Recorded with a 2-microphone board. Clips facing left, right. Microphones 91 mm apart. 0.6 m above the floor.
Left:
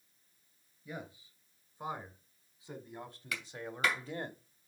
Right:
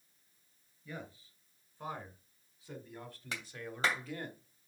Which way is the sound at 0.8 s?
15° left (ahead or behind).